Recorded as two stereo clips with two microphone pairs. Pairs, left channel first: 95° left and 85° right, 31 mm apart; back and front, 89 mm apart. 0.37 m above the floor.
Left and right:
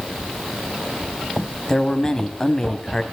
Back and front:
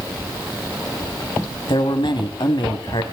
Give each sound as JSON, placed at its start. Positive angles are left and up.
{"t": 1.7, "sound": "a man speaking", "azimuth_deg": 160, "distance_m": 2.0}